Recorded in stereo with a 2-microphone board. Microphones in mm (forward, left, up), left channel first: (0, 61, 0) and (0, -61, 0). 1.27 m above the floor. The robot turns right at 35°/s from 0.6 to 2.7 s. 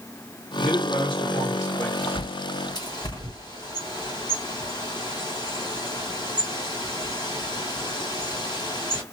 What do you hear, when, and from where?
0.6 s a man speaking: 115° left, 1.3 m; by 1.9 s 160° left, 1.3 m
2.0 s a bird: 50° left (ahead or behind), 1.7 m; by 9.0 s 35° left (ahead or behind), 1.7 m